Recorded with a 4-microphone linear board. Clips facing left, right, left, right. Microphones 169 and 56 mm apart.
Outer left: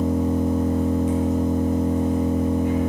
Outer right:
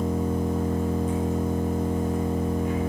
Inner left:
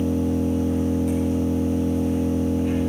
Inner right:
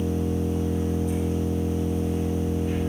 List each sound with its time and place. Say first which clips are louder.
0.0 s an engine running: outer left 5 dB, inner left 4 dB; 75° left (ahead or behind), 6 m